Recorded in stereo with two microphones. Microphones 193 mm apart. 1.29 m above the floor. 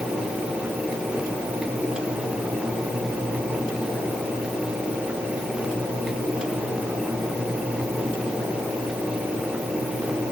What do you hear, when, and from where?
Only background noise.